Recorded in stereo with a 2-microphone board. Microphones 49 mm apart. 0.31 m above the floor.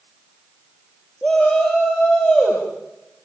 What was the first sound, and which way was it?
A shout, 20° left (ahead or behind).